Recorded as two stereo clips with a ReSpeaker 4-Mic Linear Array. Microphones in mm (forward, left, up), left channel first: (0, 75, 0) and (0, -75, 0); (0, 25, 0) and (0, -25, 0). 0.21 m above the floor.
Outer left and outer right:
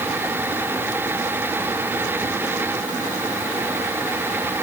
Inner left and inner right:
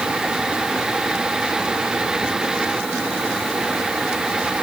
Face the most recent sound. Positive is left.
No sound to turn to.